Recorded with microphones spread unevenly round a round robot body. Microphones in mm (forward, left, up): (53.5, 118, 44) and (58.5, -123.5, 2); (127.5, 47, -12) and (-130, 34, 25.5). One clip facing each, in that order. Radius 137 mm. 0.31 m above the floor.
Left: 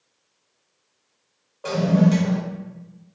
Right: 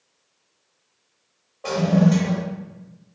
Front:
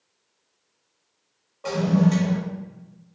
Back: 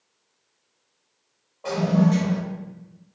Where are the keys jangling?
I don't hear keys jangling.